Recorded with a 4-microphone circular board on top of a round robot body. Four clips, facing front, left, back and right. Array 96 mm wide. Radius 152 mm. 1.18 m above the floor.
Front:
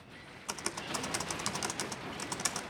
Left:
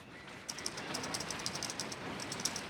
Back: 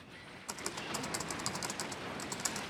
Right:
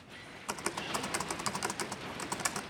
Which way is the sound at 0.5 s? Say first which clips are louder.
Right 8 dB, front 2 dB; 80° right.